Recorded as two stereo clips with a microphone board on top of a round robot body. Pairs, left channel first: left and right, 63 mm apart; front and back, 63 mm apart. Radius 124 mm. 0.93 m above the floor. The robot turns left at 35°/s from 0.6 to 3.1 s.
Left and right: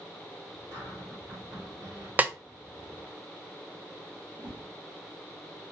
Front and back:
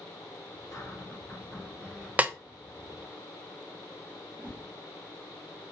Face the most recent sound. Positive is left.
turn(degrees=-115)